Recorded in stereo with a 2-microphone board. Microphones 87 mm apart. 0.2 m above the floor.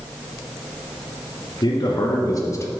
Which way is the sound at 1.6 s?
60° left (ahead or behind).